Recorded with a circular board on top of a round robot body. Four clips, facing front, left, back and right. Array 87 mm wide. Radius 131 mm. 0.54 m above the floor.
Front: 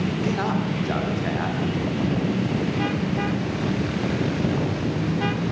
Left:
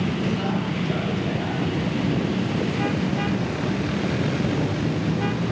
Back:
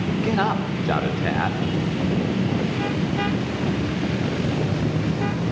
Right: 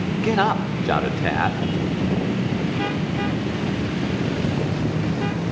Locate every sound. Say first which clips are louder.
0.2 s a man speaking: right 5 dB, back 3 dB; 110° right, 2.5 m